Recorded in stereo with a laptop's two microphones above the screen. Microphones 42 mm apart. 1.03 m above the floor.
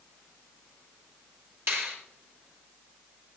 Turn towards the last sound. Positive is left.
turn(degrees=-85)